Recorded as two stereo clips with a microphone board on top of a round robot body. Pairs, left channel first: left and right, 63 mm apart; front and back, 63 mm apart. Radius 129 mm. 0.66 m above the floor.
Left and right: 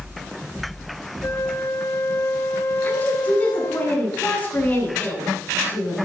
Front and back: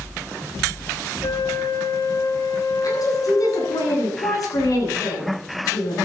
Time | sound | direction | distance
1.2 | a flute | 35° left | 1.9 m
2.8 | a woman speaking | 25° left | 9.5 m